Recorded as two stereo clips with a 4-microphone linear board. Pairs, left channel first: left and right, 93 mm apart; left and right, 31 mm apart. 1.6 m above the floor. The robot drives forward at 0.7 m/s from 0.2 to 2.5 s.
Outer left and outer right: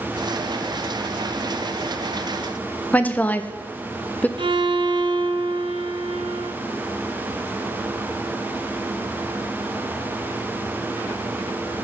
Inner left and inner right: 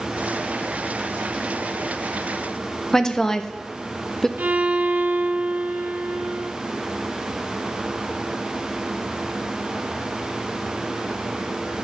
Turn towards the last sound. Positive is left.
turn(degrees=-65)  # may be behind; listen again after turning